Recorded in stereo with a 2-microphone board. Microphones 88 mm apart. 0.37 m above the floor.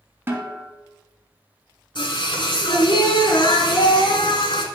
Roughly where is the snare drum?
Right.